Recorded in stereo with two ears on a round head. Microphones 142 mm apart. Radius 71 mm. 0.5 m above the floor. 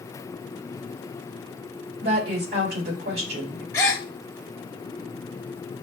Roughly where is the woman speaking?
Right.